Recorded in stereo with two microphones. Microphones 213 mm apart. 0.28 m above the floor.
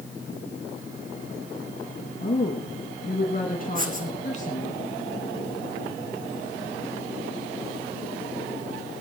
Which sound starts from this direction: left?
A woman speaking, at 2.2 s.